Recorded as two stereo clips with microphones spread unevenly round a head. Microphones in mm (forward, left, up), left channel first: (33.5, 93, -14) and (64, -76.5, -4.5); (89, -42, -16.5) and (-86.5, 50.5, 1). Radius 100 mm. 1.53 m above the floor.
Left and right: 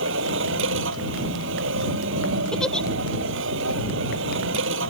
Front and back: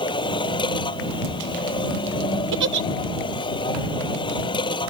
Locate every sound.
0.0 s a machine running: 95° right
2.5 s a giggle: 175° right